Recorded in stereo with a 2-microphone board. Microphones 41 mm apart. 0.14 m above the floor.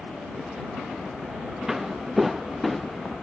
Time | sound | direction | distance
1.7 | footsteps | 10° right (ahead or behind) | ?